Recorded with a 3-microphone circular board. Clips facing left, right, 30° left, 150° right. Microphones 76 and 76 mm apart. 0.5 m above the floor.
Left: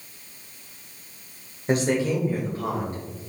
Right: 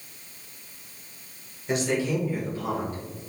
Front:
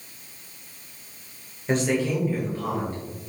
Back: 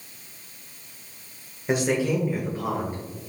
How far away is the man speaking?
About 1.5 m.